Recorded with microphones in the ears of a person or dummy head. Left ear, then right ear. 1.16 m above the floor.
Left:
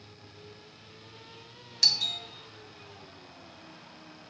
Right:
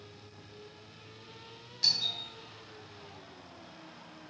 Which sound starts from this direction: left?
A doorbell, at 1.8 s.